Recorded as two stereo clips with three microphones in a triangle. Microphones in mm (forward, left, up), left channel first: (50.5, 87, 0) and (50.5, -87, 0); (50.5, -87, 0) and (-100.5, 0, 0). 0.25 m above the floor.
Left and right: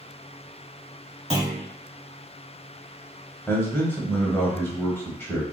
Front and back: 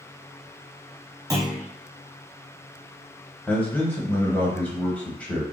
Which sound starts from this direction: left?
A clunk, at 1.3 s.